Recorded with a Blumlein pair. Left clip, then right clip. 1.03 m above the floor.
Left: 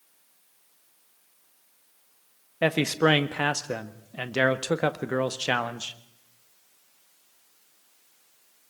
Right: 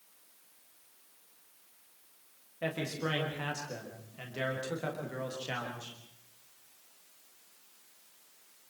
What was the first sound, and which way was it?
A man speaking, 35° left.